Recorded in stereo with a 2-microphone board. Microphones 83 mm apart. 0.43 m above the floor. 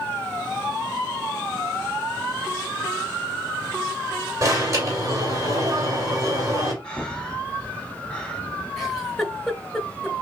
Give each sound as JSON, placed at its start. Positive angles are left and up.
{"t": 4.4, "sound": "an alarm", "side_deg": -40, "distance_m": 2.5}
{"t": 6.8, "sound": "breathing", "side_deg": 10, "distance_m": 1.4}
{"t": 8.8, "sound": "a giggle", "side_deg": 0, "distance_m": 1.2}